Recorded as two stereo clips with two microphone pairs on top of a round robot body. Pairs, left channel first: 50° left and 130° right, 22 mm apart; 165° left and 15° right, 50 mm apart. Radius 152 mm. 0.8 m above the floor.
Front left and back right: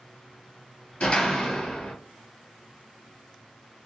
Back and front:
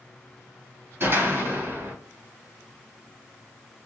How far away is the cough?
I don't hear a cough.